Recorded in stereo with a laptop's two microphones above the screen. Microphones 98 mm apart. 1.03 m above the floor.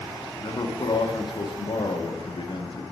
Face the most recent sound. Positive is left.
turn(degrees=55)  # may be behind; listen again after turning